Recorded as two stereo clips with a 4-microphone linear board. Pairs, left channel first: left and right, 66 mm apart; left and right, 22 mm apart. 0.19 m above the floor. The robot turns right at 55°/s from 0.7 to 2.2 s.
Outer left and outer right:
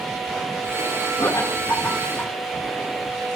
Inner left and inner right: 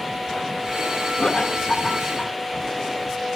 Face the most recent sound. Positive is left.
turn(degrees=15)  # may be behind; listen again after turning